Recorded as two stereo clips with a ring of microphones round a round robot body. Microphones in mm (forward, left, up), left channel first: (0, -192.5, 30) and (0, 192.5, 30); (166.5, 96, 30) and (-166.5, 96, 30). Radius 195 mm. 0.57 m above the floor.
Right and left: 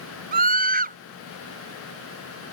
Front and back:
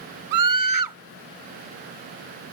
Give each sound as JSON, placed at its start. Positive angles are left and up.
{"t": 0.3, "sound": "a scream", "azimuth_deg": 160}